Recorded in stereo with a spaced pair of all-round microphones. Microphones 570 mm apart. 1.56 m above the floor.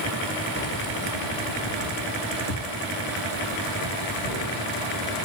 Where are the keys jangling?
20° left (ahead or behind), 0.8 m; by 5.3 s 80° left, 4 m.